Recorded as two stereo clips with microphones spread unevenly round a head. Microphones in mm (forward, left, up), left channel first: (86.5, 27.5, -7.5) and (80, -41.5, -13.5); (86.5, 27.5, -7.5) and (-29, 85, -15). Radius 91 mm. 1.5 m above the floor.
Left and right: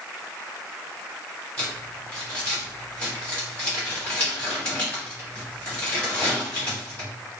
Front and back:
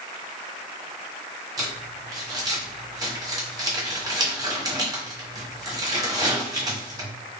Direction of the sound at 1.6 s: 125° left.